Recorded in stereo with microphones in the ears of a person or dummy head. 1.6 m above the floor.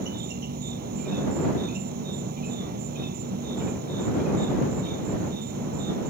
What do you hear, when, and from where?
0.0 s an insect: 45° right (ahead or behind)